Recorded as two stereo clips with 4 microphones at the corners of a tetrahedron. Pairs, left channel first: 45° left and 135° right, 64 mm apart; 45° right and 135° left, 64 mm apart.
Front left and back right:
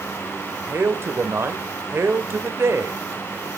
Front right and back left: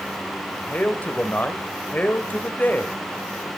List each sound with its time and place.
0.7 s a man speaking: 100° right, 1.8 m